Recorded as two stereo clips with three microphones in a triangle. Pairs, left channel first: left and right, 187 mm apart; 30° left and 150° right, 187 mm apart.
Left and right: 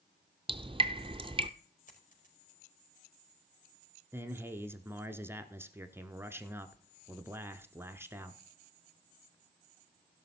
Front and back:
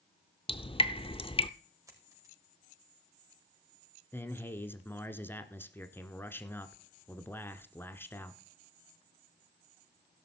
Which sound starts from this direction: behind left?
A dropped coin, at 1.9 s.